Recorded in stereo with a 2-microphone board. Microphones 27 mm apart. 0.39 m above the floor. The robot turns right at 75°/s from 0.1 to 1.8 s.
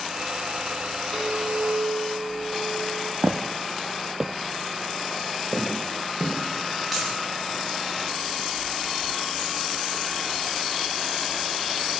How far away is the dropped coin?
About 6 m.